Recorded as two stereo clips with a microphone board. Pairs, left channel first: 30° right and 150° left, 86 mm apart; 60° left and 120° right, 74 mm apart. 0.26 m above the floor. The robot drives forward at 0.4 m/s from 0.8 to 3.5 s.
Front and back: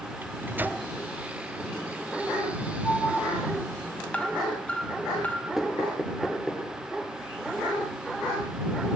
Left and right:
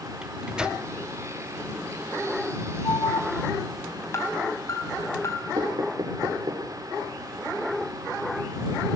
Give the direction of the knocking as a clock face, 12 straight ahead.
4 o'clock.